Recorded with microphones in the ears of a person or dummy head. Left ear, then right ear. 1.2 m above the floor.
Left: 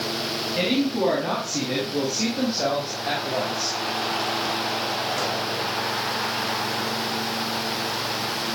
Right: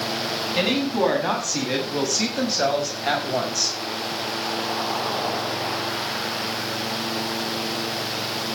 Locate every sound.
0.6 s a woman speaking: 50° right (ahead or behind), 9 m; by 3.8 s 60° right (ahead or behind), 6 m